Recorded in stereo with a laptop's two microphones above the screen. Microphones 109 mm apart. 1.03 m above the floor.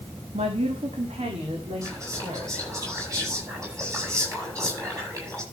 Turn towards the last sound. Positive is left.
turn(degrees=-30)  # may be behind; listen again after turning